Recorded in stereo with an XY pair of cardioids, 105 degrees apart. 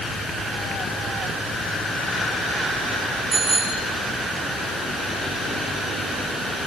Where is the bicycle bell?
30° right, 10 m.